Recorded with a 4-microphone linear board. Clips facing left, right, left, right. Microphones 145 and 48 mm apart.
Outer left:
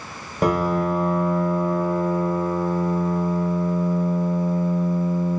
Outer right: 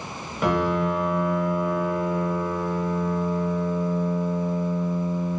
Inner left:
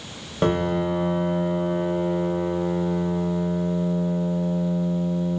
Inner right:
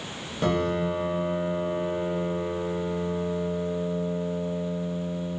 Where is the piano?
45° left (ahead or behind), 0.6 m.